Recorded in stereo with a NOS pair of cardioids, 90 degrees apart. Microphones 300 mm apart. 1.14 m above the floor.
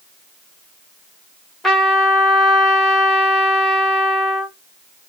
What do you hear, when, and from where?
1.6 s a trumpet: straight ahead, 1.7 m